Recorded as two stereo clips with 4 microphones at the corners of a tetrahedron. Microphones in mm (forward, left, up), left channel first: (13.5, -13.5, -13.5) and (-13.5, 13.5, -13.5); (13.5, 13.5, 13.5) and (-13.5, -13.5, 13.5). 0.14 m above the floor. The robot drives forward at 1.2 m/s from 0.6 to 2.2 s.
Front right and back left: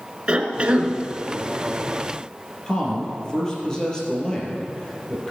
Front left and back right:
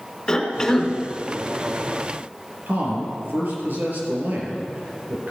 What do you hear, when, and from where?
0.3 s a cough: 105° left, 1.4 m; by 0.9 s 125° left, 1.5 m
2.7 s a man speaking: 115° right, 3.5 m